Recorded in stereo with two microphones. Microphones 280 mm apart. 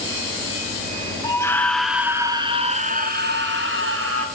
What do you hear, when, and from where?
1.2 s a scream: 15° left (ahead or behind), 1.3 m; by 4.3 s 55° right (ahead or behind), 1.6 m